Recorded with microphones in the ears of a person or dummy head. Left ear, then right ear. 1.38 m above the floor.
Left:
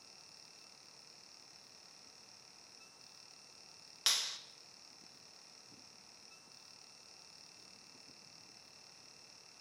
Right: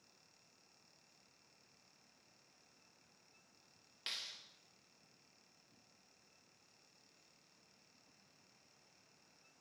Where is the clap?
45° left (ahead or behind), 1.5 m.